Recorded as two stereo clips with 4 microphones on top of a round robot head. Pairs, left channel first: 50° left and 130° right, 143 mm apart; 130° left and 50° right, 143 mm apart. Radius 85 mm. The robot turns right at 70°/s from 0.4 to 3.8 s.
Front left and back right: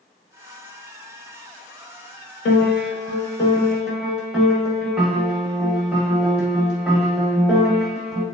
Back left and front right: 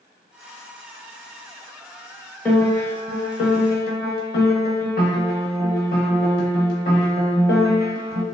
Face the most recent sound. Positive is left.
turn(degrees=150)